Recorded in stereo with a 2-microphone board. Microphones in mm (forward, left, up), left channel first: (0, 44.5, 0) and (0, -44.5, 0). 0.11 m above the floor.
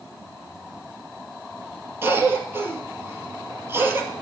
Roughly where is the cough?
Right.